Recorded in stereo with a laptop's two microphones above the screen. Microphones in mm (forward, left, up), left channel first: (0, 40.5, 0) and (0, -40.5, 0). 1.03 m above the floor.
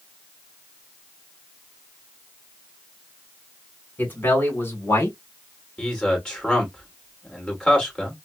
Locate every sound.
4.0 s a man speaking: 25° left (ahead or behind), 3.5 m; by 5.2 s 30° left (ahead or behind), 3 m
5.8 s a man speaking: 10° left (ahead or behind), 3 m